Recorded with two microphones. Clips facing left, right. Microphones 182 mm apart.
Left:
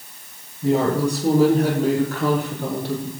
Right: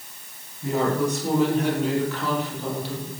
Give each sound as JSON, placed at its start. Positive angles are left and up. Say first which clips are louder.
{"t": 0.6, "sound": "a woman speaking", "louder": "left 4 dB", "side_deg": 25, "distance_m": 4.5}